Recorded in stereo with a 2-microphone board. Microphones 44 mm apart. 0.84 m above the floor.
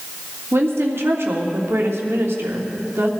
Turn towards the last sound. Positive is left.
turn(degrees=-75)  # may be behind; listen again after turning